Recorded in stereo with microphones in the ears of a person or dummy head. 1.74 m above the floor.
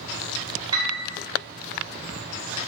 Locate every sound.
0.7 s a piano: 20° right (ahead or behind), 1.5 m